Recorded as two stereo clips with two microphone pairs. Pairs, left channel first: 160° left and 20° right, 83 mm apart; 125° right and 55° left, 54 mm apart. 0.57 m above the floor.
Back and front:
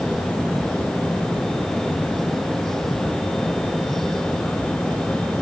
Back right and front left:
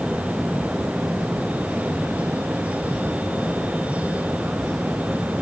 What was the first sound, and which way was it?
Only background noise.